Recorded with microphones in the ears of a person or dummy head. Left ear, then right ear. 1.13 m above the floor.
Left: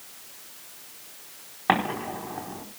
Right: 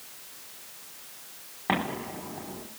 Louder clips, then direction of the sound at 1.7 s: Left 5 dB; 40° left (ahead or behind).